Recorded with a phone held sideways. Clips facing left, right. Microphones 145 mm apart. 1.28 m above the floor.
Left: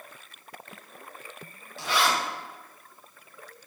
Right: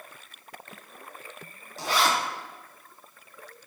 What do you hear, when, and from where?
1.8 s a zipper: 40° right (ahead or behind), 0.7 m